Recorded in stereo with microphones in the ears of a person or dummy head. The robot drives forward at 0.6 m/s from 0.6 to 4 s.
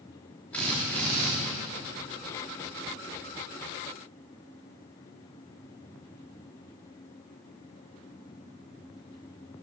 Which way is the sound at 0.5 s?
5° left (ahead or behind).